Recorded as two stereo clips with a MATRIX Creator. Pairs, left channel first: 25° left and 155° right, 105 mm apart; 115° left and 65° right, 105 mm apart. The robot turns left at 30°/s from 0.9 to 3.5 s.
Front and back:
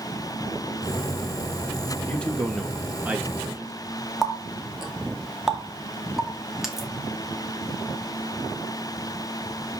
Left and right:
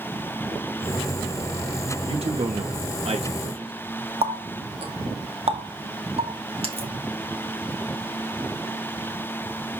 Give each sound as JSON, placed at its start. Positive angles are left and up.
{"t": 2.1, "sound": "a man speaking", "azimuth_deg": -50, "distance_m": 2.0}
{"t": 4.2, "sound": "a running tap", "azimuth_deg": -70, "distance_m": 2.0}